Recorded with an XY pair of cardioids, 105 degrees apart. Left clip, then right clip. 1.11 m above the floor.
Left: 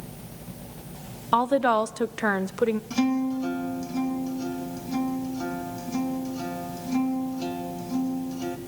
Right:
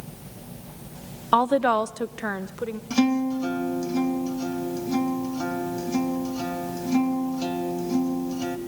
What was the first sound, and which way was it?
A woman speaking, 20° right.